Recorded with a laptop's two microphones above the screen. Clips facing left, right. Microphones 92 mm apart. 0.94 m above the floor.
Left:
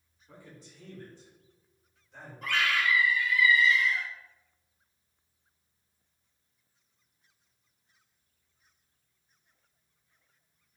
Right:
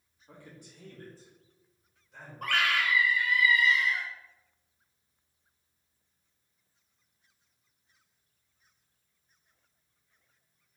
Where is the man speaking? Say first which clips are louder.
Even; 65° right (ahead or behind), 1.1 m; by 2.3 s 5° left (ahead or behind), 1.2 m.